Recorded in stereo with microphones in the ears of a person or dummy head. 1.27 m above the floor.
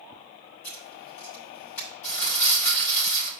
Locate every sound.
0.6 s writing: 55° left (ahead or behind), 5.5 m
2.0 s crumpling: 55° left (ahead or behind), 5 m